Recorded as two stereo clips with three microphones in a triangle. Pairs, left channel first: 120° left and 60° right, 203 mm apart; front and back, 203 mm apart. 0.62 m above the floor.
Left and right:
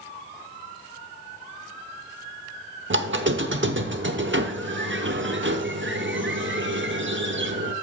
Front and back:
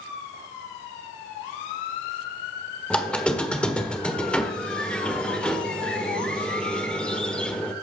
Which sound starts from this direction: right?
A squeak, at 2.9 s.